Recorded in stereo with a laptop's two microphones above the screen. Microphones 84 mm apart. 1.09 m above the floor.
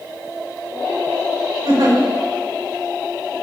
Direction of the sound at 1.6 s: 75° right (ahead or behind).